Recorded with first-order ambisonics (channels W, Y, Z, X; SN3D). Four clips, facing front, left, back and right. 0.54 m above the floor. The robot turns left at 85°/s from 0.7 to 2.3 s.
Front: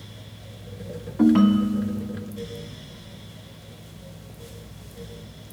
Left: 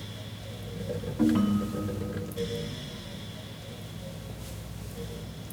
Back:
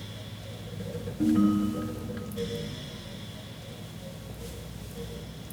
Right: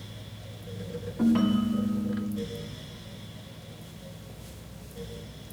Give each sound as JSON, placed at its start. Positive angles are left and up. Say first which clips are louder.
{"t": 1.2, "sound": "a ringtone", "louder": "right 1 dB, front 6 dB", "azimuth_deg": 5, "distance_m": 0.7}